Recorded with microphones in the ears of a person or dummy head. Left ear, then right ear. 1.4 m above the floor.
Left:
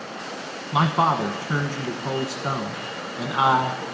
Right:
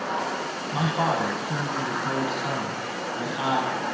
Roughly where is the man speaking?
Left.